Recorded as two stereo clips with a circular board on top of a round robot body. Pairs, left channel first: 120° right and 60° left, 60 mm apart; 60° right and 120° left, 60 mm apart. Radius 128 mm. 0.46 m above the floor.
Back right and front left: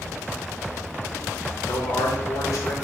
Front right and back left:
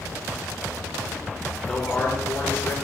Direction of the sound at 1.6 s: 130° right.